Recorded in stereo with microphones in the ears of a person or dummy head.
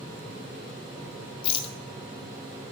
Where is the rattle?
30° left (ahead or behind), 0.7 m.